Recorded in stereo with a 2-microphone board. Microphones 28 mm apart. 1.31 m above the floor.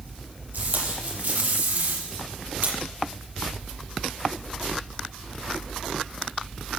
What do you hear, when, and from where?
0.5 s tape being pulled: 70° right (ahead or behind), 7.5 m